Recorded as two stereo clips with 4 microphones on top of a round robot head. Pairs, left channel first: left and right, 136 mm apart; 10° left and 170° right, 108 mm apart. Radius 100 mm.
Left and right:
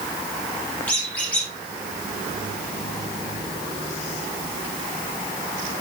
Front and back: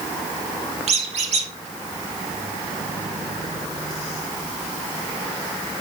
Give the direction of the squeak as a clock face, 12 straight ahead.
6 o'clock.